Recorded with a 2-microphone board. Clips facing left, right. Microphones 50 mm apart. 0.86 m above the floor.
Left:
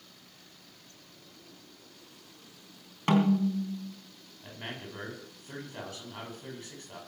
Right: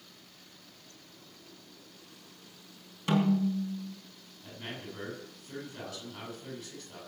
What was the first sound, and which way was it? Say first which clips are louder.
A snare drum: left 2 dB; 45° left (ahead or behind).